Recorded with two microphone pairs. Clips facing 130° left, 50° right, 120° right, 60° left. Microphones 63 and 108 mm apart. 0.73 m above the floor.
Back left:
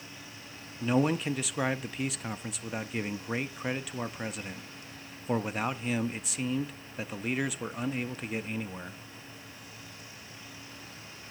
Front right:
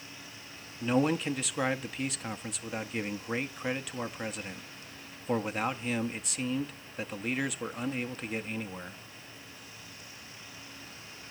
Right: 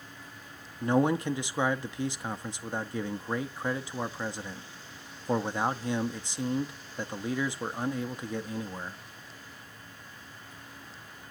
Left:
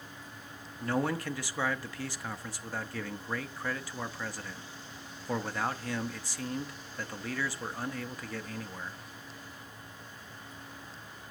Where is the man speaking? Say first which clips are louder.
Even, right 6 dB; 150° right, 0.6 m.